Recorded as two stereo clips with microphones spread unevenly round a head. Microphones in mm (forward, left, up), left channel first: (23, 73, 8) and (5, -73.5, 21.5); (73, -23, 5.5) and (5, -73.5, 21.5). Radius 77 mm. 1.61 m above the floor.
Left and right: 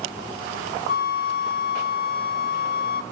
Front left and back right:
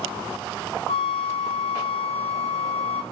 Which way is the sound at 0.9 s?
60° left.